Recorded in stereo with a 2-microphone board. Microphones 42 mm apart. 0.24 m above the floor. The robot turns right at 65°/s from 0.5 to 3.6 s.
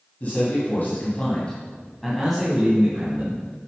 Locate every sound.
0.2 s a man speaking: 80° left, 2.0 m; by 3.4 s 90° right, 2.0 m